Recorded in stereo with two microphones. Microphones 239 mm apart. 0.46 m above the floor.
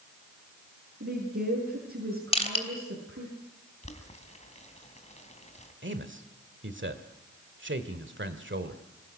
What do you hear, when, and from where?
1.0 s a woman speaking: 60° right (ahead or behind), 7 m
2.3 s crushing: 25° left (ahead or behind), 3 m
3.8 s boiling: 30° left (ahead or behind), 3 m
5.8 s a man speaking: 50° right (ahead or behind), 1.7 m